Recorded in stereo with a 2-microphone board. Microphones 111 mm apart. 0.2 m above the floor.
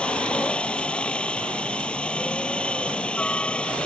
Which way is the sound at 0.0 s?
10° left (ahead or behind).